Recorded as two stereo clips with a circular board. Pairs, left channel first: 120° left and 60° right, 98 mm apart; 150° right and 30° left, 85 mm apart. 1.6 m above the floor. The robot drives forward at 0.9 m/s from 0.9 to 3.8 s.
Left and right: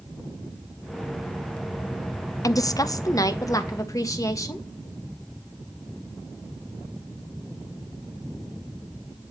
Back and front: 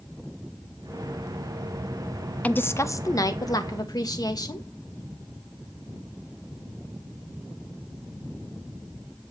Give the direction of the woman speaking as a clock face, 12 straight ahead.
7 o'clock.